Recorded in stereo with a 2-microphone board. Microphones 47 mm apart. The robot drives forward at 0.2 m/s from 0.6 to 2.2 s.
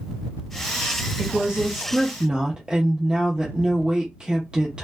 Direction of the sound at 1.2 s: 25° right (ahead or behind).